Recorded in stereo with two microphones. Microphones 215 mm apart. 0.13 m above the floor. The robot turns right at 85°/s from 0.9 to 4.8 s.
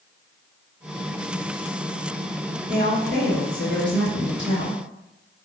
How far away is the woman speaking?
About 2.0 m.